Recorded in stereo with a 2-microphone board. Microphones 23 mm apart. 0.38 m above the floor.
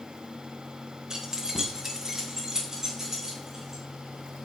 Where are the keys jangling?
20° right (ahead or behind), 1.5 m; by 3.8 s 15° right (ahead or behind), 4 m.